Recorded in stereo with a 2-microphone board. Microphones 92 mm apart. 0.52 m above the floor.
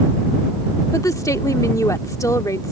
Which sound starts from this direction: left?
A woman speaking, at 0.9 s.